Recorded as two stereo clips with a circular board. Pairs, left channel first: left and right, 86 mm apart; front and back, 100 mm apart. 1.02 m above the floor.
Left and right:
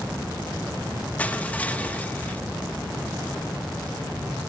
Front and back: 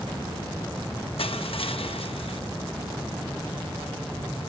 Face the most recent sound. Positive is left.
turn(degrees=15)